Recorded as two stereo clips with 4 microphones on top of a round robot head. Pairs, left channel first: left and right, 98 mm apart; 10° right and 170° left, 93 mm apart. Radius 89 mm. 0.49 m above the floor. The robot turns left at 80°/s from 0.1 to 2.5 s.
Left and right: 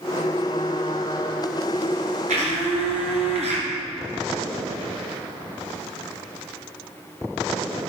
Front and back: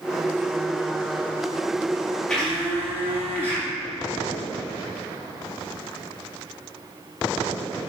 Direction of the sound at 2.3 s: 90° right.